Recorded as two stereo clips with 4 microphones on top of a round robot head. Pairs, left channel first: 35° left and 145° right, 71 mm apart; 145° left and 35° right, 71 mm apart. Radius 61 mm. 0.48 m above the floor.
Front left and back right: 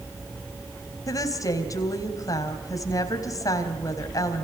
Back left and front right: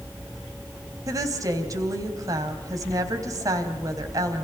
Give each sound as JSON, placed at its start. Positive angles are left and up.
{"t": 1.1, "sound": "a woman speaking", "azimuth_deg": 0, "distance_m": 4.0}